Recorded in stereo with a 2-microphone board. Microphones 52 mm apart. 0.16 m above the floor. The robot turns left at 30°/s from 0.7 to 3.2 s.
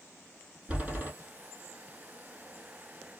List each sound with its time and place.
0.7 s a door slam: 20° right (ahead or behind), 3.5 m; by 1.1 s 30° right (ahead or behind), 3.5 m